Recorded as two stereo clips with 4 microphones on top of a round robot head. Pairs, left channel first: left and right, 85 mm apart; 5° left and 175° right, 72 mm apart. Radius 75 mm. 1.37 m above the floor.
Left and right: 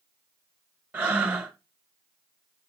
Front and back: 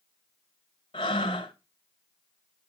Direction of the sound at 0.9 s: 25° right.